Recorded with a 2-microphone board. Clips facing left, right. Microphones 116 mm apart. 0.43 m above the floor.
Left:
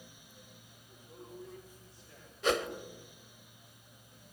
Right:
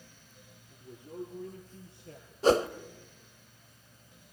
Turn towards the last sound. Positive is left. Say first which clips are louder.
# right 7 dB
turn(degrees=-35)  # may be behind; listen again after turning